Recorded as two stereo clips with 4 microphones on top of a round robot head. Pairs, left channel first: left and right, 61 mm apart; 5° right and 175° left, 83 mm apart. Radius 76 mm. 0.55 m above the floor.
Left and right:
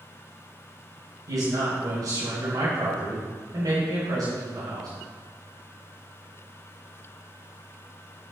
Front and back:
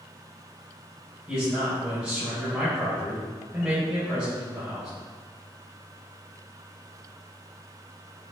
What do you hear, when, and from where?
1.3 s a man speaking: 105° right, 3 m